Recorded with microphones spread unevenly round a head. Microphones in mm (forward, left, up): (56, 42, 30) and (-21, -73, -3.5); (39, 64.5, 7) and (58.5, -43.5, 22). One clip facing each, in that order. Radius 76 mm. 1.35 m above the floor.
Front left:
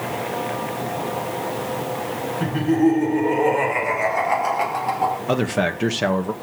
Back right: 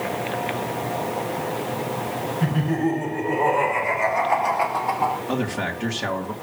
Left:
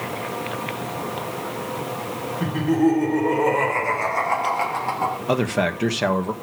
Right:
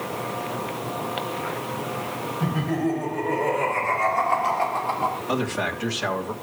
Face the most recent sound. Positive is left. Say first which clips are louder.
# front left 5 dB, left 4 dB
turn(degrees=75)